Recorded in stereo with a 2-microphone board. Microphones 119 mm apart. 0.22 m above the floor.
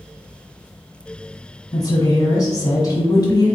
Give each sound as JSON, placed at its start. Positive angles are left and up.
{"t": 1.7, "sound": "a woman speaking", "side_deg": 30, "distance_m": 1.4}